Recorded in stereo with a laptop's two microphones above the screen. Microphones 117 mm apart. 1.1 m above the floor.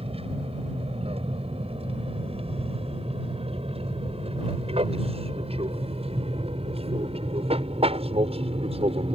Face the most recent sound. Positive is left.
turn(degrees=-55)  # may be behind; listen again after turning